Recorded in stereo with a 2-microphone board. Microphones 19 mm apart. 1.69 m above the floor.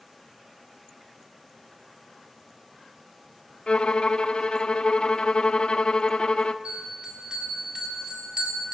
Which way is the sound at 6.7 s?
55° right (ahead or behind).